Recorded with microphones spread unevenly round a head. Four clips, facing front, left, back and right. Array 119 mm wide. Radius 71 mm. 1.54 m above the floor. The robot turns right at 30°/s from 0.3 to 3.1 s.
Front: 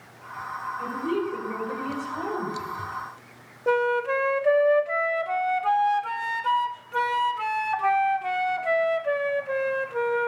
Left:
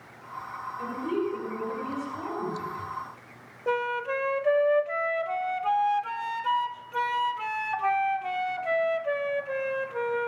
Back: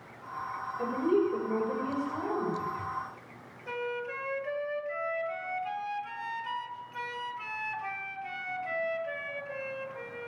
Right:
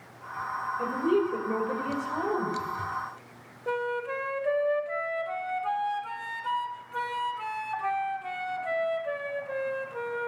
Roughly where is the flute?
Ahead.